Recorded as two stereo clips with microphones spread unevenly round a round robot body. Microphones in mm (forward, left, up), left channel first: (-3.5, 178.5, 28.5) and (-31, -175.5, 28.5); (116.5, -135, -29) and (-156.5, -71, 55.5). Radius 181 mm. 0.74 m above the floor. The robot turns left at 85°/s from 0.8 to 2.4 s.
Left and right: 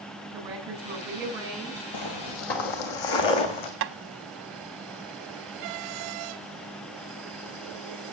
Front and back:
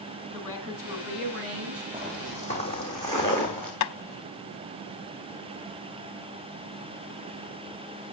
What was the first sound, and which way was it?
A woman speaking, 120° right.